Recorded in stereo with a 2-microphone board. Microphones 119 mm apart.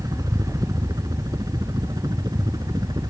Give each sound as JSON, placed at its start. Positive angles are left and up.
{"t": 0.0, "sound": "a helicopter", "side_deg": -30}